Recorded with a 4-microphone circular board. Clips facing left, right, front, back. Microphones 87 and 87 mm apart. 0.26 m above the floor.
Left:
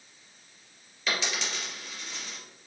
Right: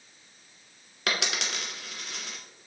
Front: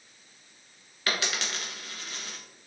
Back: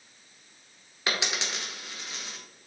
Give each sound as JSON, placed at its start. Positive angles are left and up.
{"t": 1.1, "sound": "a dropped coin", "azimuth_deg": -110, "distance_m": 1.3}